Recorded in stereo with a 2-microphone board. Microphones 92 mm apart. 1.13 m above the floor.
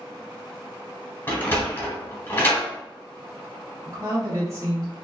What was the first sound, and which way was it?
A sliding door, 25° left (ahead or behind).